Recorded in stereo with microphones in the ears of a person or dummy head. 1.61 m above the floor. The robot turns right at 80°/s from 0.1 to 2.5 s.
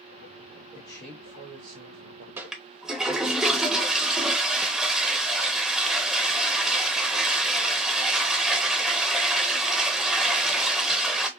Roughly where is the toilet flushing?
Centre.